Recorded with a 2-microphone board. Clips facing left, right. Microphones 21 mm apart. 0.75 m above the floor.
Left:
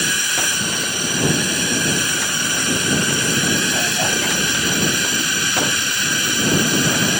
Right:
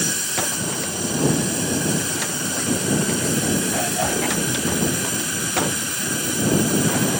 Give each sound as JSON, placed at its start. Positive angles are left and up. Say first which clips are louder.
{"t": 0.0, "sound": "a drone", "louder": "left 5 dB", "side_deg": 40}